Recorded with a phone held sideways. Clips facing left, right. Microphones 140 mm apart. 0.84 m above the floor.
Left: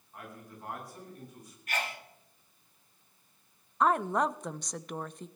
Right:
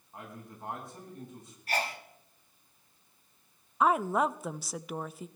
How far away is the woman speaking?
About 0.5 m.